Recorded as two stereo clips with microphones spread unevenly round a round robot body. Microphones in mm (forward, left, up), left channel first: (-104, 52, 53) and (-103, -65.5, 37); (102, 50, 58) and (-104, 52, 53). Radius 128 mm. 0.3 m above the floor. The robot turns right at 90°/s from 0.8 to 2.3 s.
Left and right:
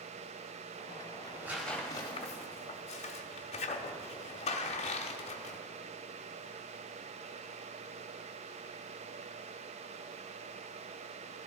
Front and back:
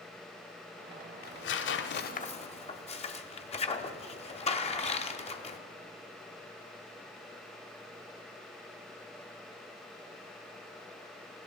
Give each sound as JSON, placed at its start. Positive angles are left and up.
{"t": 1.2, "sound": "tearing paper", "azimuth_deg": -40, "distance_m": 0.8}